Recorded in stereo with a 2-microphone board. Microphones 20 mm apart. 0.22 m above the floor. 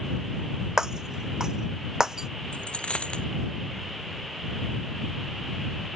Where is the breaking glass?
35° right (ahead or behind).